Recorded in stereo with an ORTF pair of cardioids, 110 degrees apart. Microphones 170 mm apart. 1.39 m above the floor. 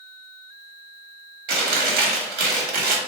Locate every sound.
1.5 s chewing: 70° right, 1.4 m